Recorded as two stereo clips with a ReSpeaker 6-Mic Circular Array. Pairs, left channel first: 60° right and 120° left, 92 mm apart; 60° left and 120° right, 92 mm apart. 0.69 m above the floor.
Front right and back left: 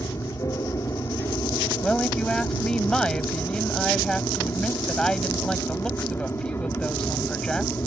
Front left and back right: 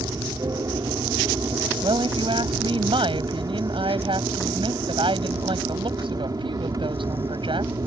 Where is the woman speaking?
140° right.